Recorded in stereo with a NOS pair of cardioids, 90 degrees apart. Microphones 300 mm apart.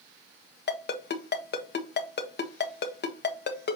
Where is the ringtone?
35° left, 1.6 m.